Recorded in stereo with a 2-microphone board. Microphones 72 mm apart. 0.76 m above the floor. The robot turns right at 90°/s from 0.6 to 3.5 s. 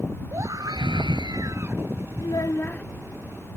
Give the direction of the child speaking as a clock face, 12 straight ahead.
8 o'clock.